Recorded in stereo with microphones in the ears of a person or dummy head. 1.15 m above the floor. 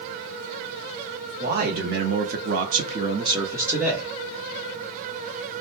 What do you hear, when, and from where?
1.4 s a man speaking: 45° right (ahead or behind), 1.0 m; by 4.1 s 5° right (ahead or behind), 1.0 m